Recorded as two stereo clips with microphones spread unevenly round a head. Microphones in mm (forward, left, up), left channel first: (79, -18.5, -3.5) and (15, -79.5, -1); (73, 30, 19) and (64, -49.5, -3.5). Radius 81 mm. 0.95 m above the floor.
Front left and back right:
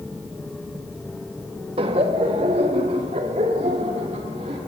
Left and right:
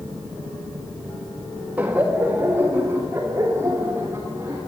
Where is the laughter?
165° right, 1.6 m.